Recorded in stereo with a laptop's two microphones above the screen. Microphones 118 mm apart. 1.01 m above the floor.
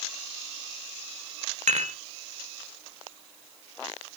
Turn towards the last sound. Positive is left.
turn(degrees=-80)